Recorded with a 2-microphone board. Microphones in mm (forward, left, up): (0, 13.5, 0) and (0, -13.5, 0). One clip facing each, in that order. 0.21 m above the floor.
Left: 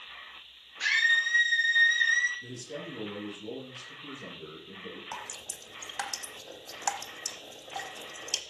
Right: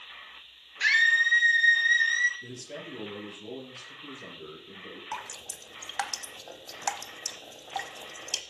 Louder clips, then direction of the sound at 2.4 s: Left 1 dB; 45° right (ahead or behind).